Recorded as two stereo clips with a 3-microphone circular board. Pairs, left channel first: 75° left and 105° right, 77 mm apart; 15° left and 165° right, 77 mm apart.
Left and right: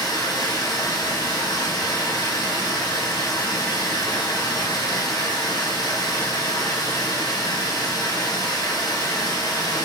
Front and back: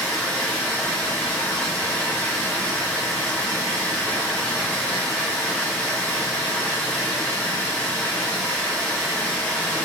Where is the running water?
80° left, 1.5 m.